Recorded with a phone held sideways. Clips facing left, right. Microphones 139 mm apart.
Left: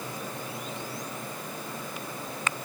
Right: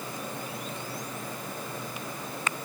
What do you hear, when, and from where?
Only background noise.